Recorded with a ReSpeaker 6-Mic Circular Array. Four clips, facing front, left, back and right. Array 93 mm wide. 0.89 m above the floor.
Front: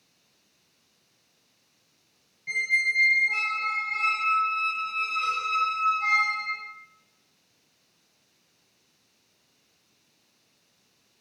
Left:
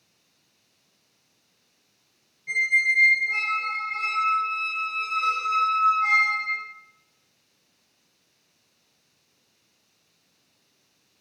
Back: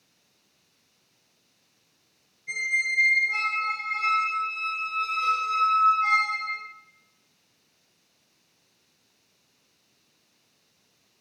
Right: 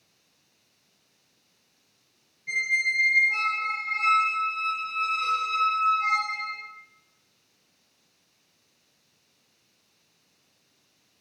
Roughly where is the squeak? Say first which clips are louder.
Left 4 dB, front 2 dB; ahead.